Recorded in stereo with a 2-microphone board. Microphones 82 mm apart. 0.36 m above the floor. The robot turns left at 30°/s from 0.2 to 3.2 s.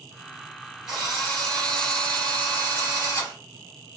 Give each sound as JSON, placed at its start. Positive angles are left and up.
{"t": 0.9, "sound": "a drill", "azimuth_deg": -175, "distance_m": 1.6}